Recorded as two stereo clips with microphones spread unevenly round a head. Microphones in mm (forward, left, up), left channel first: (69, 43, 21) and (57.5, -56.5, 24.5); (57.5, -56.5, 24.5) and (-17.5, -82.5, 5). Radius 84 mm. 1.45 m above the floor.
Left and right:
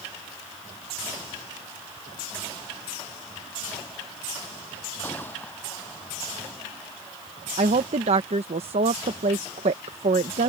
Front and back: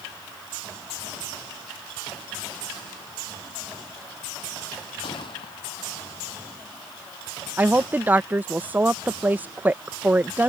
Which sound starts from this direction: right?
A woman speaking, at 7.6 s.